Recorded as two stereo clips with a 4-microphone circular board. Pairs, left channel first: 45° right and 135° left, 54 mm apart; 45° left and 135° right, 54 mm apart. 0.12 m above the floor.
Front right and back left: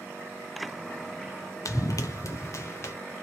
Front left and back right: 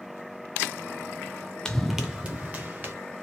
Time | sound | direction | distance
1.6 | running footsteps | 30° right | 0.5 m